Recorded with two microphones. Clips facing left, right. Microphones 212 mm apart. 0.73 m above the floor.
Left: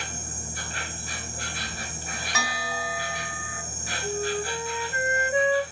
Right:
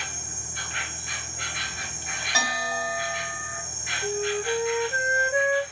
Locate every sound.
0.0 s an insect: 35° left (ahead or behind), 1.7 m
2.3 s a bell: 30° right (ahead or behind), 3 m
4.0 s a flute: 30° right (ahead or behind), 2 m